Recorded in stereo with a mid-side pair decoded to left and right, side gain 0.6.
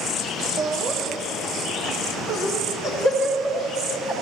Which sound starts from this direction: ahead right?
Laughter, at 0.6 s.